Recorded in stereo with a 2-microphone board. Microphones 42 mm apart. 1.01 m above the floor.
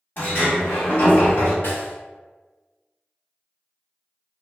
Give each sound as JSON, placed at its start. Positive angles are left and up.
{"t": 0.2, "sound": "a sliding door", "side_deg": 50, "distance_m": 1.4}
{"t": 1.6, "sound": "a snare drum", "side_deg": 55, "distance_m": 0.7}